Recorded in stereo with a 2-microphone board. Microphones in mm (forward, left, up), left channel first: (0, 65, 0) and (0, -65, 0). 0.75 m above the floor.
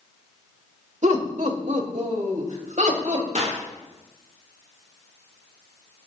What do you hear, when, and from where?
1.0 s laughter: 65° right (ahead or behind), 2.5 m; by 3.2 s 80° right, 4 m
3.4 s a clap: 65° right (ahead or behind), 6.5 m